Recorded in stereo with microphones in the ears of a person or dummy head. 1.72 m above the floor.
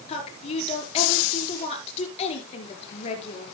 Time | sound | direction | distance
0.1 | a woman speaking | 35° left (ahead or behind) | 5 m